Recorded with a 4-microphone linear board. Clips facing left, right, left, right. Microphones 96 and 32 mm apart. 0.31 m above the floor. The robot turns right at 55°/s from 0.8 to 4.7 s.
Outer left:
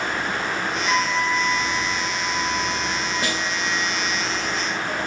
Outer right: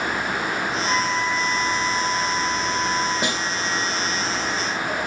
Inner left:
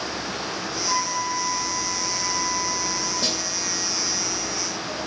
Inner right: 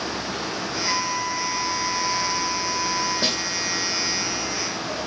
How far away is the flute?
About 3.5 m.